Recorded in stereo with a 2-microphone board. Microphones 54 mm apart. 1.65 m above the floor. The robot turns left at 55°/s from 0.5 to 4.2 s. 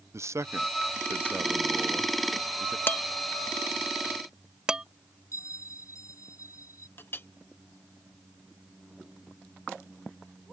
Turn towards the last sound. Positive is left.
turn(degrees=45)  # may be behind; listen again after turning